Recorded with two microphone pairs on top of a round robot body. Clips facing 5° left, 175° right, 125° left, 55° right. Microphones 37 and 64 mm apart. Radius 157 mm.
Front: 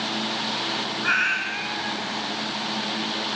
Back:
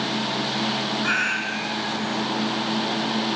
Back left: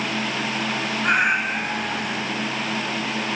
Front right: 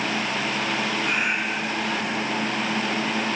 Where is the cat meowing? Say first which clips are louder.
Front 3 dB, back left 5 dB; 90° left, 3.5 m.